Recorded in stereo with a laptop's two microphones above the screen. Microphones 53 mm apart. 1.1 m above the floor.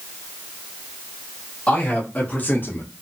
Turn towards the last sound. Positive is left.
turn(degrees=45)  # may be behind; listen again after turning